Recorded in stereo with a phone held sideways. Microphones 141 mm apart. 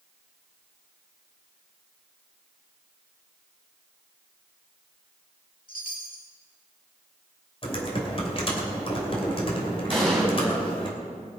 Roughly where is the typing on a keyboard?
Left.